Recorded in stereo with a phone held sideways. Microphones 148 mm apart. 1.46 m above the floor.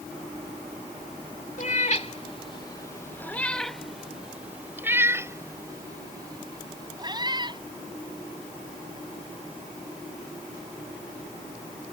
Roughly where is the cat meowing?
Left.